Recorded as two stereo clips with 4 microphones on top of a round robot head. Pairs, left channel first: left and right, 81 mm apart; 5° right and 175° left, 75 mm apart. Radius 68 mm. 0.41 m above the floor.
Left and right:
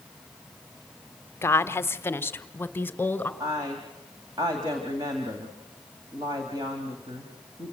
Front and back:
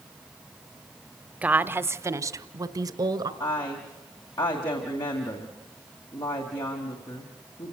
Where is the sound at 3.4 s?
35° right, 2.5 m.